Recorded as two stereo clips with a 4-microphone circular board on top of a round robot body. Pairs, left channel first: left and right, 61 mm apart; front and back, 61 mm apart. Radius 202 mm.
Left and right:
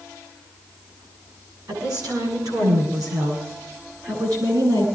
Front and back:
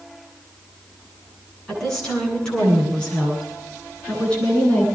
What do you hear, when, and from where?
1.7 s a woman speaking: 80° right, 10 m; by 4.9 s 70° right, 11 m